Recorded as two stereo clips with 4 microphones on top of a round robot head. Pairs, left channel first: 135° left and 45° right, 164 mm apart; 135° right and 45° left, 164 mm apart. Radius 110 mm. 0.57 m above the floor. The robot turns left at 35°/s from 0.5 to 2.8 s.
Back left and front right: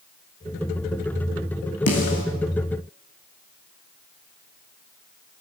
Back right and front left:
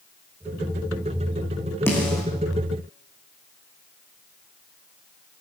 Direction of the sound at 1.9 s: 145° left.